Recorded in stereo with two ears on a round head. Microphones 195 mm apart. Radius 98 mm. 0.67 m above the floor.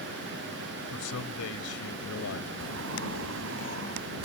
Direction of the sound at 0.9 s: 75° left (ahead or behind).